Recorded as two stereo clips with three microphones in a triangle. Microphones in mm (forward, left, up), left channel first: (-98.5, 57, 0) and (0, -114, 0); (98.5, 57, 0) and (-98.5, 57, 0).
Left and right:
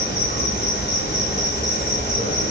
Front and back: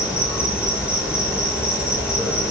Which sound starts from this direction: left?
An insect, at 0.0 s.